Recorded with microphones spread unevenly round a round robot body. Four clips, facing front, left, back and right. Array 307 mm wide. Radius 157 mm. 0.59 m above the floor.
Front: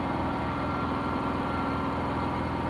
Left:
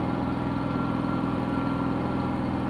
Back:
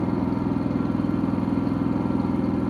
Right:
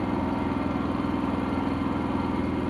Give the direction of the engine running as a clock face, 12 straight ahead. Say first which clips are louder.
Right 1 dB, back 5 dB; 6 o'clock.